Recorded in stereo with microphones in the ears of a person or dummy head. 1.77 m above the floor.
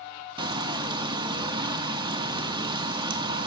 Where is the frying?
25° right (ahead or behind), 0.6 m.